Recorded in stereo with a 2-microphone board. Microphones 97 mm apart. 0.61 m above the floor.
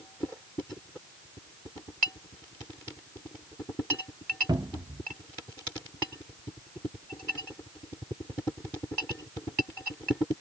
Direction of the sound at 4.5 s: 50° right (ahead or behind).